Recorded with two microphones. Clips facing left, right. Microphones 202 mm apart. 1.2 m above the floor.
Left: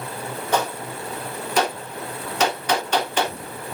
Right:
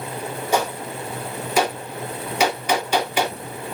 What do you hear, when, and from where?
0.5 s a gunshot: 10° right (ahead or behind), 2.5 m